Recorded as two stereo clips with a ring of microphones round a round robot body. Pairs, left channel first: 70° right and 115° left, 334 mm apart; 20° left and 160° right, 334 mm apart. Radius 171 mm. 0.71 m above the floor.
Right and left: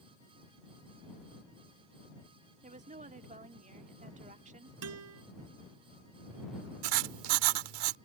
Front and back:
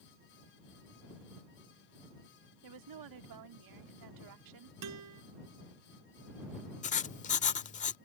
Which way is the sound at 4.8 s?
160° left.